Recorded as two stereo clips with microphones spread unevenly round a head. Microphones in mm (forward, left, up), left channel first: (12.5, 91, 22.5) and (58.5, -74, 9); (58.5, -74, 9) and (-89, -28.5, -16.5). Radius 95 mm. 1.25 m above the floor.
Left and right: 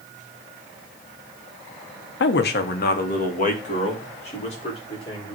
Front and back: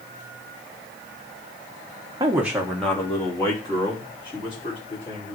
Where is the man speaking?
95° left, 1.1 m; by 5.4 s 50° left, 4.5 m.